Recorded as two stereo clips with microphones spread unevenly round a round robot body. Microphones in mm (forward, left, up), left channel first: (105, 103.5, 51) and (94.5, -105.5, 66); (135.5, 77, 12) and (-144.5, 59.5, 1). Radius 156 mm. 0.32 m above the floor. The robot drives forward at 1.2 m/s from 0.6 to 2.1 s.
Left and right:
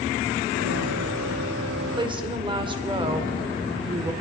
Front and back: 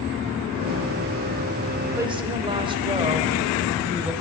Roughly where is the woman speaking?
Right.